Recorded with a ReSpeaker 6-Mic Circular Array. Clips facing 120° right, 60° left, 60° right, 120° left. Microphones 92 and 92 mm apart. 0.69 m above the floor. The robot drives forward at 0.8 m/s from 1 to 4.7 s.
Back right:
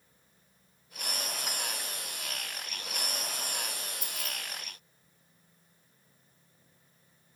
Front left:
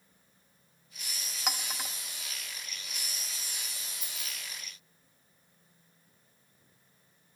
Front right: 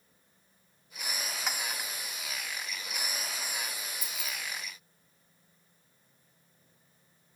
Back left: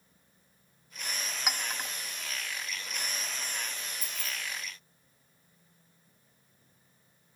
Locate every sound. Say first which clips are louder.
1.5 s a clink: front left 1 dB, back left 3 dB; 40° left, 0.7 m; by 1.9 s 70° left, 0.5 m
4.0 s keys jangling: back right 5 dB, even; 120° right, 0.9 m; by 4.3 s 135° right, 1.1 m